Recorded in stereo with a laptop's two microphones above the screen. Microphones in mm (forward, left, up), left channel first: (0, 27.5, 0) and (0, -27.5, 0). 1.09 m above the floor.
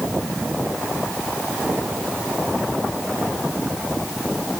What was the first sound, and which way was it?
Only background noise.